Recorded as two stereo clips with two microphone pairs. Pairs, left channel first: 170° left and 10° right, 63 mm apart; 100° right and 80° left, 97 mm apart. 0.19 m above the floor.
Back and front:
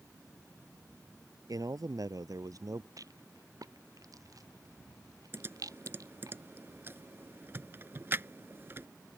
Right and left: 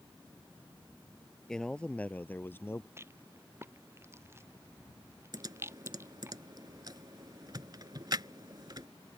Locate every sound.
1.5 s a man speaking: 15° right; by 2.9 s 35° right
3.0 s a rattle: 15° left
5.3 s typing on a keyboard: 35° left